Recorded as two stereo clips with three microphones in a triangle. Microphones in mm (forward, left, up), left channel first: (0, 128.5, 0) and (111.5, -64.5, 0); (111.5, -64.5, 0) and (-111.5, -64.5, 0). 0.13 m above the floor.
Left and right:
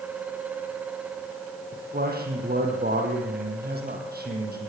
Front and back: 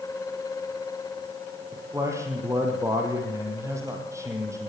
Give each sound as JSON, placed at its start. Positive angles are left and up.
{"t": 1.7, "sound": "a man speaking", "azimuth_deg": -105, "distance_m": 4.5}